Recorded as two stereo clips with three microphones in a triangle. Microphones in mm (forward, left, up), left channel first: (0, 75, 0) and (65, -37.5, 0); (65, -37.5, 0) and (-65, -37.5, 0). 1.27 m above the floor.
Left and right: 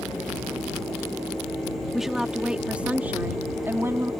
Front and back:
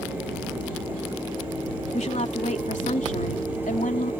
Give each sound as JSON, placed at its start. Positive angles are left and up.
{"t": 1.9, "sound": "a woman speaking", "azimuth_deg": 30}